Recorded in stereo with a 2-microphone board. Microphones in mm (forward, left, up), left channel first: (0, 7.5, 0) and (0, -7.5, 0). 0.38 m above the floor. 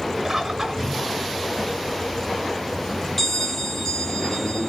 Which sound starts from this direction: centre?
A bell, at 3.2 s.